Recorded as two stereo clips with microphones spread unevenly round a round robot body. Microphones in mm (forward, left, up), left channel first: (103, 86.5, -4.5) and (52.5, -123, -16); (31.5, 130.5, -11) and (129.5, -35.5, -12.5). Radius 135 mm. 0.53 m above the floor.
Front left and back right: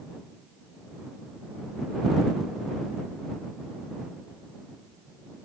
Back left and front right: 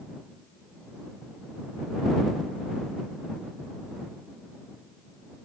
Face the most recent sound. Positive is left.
No sound to turn to.